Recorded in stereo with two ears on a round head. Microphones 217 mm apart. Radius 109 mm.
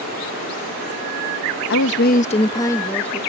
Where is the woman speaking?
55° left (ahead or behind); by 3.2 s 5° left (ahead or behind).